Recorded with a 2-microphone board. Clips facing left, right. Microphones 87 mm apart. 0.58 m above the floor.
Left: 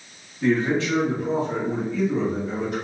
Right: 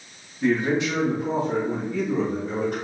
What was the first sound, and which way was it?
A man speaking, centre (ahead or behind).